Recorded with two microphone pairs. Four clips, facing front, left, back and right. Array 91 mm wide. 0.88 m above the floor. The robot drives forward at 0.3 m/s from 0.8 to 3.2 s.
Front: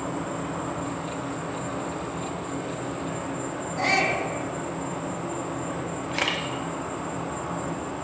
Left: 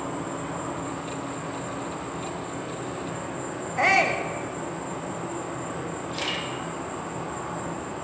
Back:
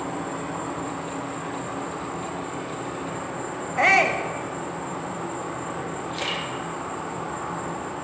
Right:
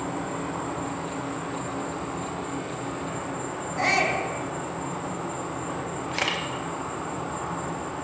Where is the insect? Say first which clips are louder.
Right 1 dB, even; 145° right, 3.5 m; by 8.1 s 155° right, 4 m.